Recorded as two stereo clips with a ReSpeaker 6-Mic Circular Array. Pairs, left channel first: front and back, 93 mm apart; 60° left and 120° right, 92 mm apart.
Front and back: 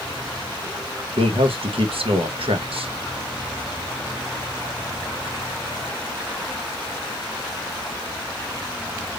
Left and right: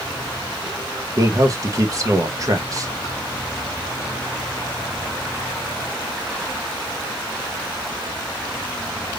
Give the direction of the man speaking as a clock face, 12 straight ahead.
6 o'clock.